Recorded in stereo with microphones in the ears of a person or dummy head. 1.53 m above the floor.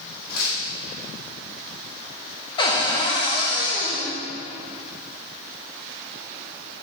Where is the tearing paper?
55° left (ahead or behind), 2.5 m.